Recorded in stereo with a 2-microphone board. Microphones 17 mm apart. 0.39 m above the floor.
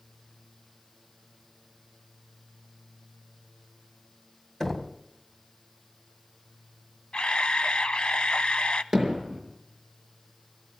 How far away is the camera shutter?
About 0.9 m.